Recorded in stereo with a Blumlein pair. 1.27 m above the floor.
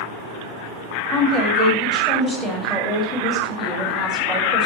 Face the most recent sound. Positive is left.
turn(degrees=-10)